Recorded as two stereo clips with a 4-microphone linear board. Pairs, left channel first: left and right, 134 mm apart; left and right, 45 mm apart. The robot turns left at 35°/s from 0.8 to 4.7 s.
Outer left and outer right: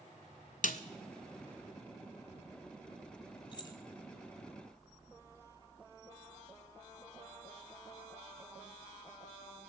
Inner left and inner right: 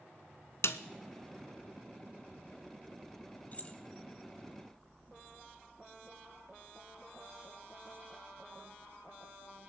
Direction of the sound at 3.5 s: 40° left (ahead or behind).